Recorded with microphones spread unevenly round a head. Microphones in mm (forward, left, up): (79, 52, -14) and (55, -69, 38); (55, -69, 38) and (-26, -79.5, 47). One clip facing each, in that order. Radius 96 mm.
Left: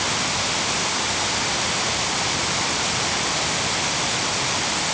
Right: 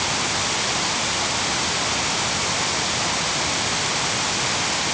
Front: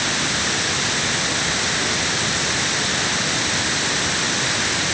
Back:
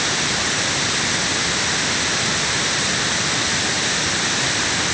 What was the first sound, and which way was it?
Only background noise.